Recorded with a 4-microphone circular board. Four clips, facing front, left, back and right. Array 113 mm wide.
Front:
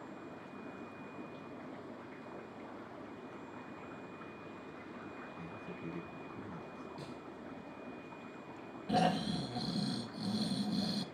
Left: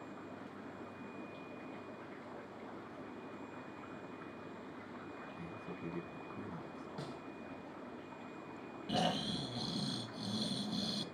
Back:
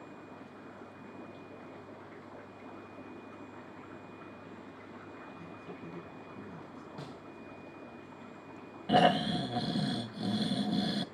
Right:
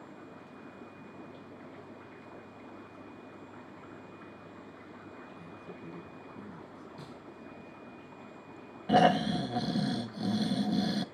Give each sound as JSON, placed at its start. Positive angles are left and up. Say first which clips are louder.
{"t": 5.4, "sound": "a man speaking", "louder": "even, even", "azimuth_deg": 70, "distance_m": 3.0}
{"t": 7.0, "sound": "a snare drum", "louder": "left 1 dB, back 1 dB", "azimuth_deg": 125, "distance_m": 2.5}
{"t": 8.9, "sound": "snoring", "louder": "right 13 dB, back 7 dB", "azimuth_deg": -120, "distance_m": 0.7}